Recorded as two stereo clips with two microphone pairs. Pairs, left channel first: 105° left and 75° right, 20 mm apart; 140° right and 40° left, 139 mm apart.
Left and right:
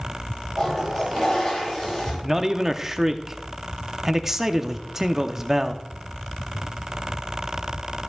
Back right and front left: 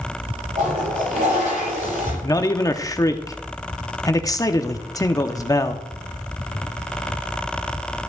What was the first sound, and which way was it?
A toilet flushing, 35° left.